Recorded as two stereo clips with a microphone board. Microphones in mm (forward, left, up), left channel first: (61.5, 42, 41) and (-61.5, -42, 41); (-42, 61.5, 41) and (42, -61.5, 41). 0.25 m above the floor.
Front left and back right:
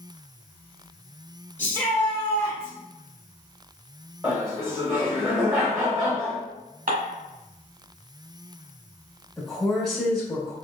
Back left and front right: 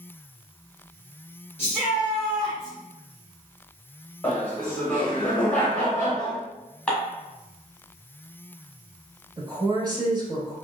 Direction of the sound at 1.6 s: 90° left.